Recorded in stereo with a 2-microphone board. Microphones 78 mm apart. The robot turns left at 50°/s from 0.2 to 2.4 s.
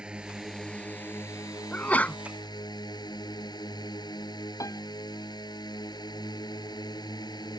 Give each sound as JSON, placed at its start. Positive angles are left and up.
{"t": 0.0, "sound": "a drone", "azimuth_deg": -165}
{"t": 1.7, "sound": "a sneeze", "side_deg": 20}
{"t": 4.6, "sound": "a piano", "side_deg": 45}